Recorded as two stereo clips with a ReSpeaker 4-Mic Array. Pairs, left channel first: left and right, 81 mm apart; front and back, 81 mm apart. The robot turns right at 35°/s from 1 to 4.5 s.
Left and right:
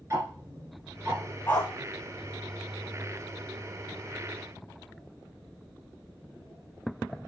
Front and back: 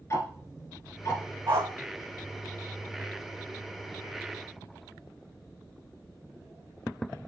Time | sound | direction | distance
0.1 | ticking | 45° right | 1.9 m
1.5 | a dog barking | 150° left | 1.3 m